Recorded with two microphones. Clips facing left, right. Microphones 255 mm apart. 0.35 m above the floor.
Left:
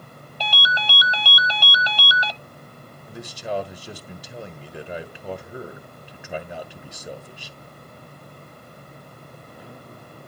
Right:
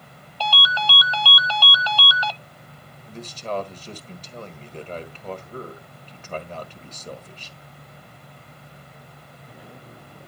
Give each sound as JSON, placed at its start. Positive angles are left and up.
{"t": 0.4, "sound": "a ringtone", "side_deg": 20, "distance_m": 0.6}
{"t": 3.1, "sound": "a man speaking", "side_deg": 10, "distance_m": 1.2}